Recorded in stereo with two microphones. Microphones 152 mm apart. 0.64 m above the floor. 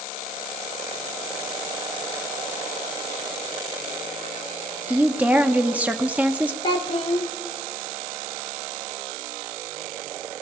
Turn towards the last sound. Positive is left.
turn(degrees=35)  # may be behind; listen again after turning